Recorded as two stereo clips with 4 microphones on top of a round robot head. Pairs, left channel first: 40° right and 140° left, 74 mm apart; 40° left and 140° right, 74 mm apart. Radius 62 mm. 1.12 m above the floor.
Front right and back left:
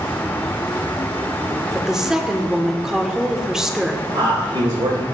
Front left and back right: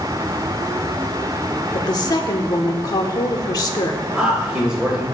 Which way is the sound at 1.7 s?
55° left.